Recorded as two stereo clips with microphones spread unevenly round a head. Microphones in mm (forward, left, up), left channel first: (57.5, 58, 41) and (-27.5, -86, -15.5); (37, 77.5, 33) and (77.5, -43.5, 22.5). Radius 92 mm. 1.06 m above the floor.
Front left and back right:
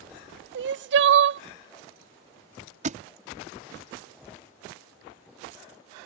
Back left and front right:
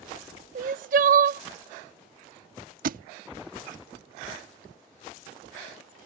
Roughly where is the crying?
Right.